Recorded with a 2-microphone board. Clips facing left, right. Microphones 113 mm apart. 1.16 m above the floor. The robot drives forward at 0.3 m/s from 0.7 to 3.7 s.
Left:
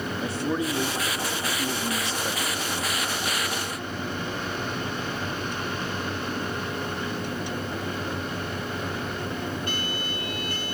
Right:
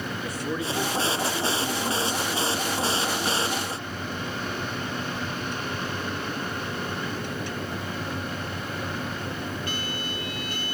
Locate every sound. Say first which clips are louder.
0.2 s a man speaking: left 4 dB; 30° left (ahead or behind), 2.5 m; by 2.7 s 35° left (ahead or behind), 2 m